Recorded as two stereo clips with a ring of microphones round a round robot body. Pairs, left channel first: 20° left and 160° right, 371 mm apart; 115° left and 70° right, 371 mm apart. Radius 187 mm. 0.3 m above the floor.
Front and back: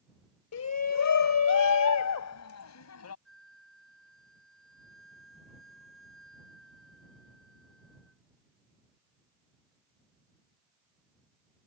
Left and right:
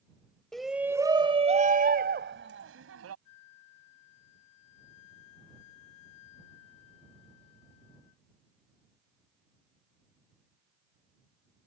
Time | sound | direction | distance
0.5 | a shout | 25° left | ?
3.2 | a flute | 110° left | ?